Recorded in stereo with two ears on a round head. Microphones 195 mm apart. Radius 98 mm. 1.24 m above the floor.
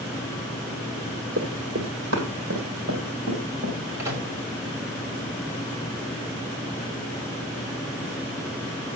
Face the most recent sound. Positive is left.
turn(degrees=-15)  # may be behind; listen again after turning